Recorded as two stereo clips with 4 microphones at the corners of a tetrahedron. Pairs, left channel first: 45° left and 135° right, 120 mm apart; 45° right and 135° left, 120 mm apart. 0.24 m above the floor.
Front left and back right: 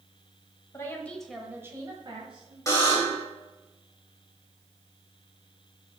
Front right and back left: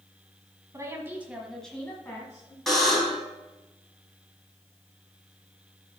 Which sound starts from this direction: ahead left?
A buzzer, at 2.7 s.